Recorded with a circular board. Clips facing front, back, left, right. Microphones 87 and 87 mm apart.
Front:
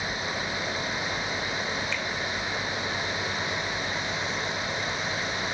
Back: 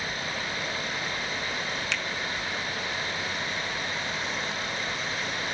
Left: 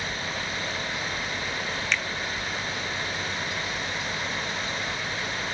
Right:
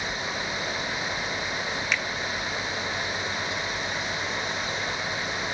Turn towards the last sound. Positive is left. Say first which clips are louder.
# front 1 dB, even
turn(degrees=-170)